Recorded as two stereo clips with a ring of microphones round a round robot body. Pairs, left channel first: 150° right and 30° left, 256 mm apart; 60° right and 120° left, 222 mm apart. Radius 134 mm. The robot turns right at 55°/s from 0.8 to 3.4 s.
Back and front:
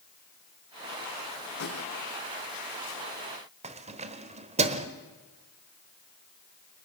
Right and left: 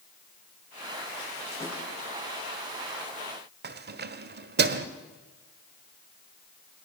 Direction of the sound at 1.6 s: 140° right.